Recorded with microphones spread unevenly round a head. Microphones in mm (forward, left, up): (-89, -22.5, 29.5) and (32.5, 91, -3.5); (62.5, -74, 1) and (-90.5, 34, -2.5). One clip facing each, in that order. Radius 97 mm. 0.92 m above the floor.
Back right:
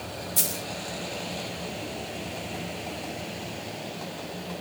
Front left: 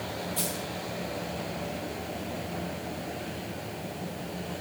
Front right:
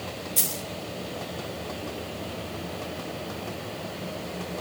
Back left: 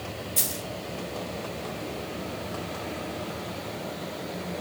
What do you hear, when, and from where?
0.4 s a dropped coin: 125° right, 0.7 m